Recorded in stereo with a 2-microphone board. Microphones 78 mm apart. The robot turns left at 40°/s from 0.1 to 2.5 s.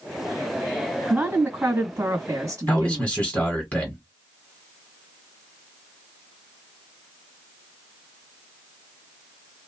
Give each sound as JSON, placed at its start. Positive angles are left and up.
{"t": 1.1, "sound": "a woman speaking", "azimuth_deg": -25, "distance_m": 1.5}
{"t": 2.7, "sound": "a man speaking", "side_deg": 15, "distance_m": 1.5}